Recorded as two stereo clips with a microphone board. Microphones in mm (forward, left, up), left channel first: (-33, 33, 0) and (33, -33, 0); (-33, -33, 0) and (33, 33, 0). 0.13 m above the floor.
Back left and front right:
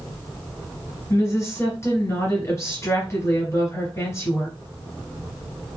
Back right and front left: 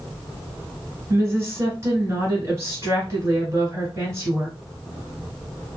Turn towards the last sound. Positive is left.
turn(degrees=90)